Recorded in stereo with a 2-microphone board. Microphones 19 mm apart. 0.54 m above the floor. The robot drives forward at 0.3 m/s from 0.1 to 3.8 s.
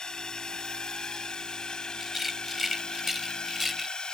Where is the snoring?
I don't hear snoring.